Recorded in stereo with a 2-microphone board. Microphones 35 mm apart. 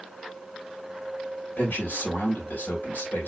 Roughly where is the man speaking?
Left.